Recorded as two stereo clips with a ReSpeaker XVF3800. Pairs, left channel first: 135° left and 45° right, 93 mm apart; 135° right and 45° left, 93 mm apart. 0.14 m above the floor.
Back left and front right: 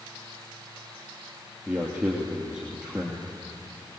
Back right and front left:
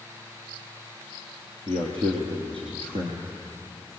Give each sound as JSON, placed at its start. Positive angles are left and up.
{"t": 1.7, "sound": "a man speaking", "azimuth_deg": 35, "distance_m": 3.0}